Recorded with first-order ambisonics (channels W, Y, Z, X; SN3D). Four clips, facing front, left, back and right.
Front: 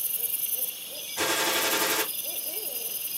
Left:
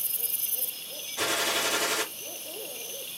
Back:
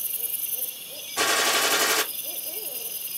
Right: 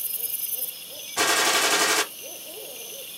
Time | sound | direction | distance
1.2 | a gunshot | 115° right | 0.8 m